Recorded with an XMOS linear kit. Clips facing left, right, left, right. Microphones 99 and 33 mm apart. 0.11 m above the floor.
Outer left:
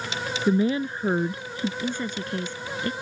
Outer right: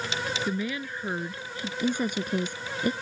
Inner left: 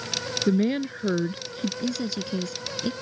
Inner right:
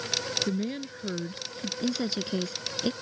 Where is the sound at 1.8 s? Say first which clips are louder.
Outer right 2 dB, inner left 1 dB; 15° right (ahead or behind).